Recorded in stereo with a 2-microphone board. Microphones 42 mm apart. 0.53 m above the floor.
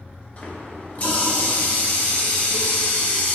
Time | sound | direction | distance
0.4 | a running tap | 35° left (ahead or behind) | 0.6 m